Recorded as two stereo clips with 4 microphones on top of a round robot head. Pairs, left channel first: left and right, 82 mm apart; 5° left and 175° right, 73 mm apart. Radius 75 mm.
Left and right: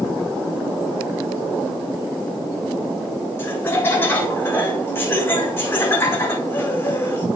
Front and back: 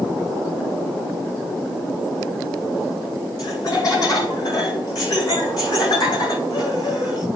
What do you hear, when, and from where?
3.4 s laughter: 30° left, 3.5 m